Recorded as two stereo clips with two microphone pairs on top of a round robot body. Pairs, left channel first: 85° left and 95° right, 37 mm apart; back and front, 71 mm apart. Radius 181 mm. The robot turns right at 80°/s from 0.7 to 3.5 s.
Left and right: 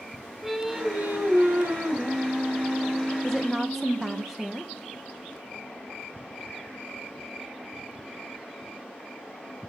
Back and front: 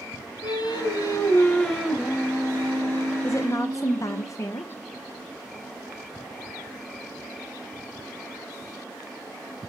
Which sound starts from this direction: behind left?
A woman speaking, at 3.2 s.